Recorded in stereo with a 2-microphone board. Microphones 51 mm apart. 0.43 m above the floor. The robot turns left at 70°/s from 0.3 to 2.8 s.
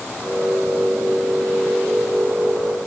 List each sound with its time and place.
Only background noise.